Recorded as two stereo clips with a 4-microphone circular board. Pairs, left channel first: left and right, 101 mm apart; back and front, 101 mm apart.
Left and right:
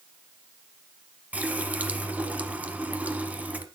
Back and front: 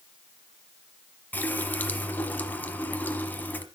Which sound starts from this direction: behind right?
A running tap, at 1.3 s.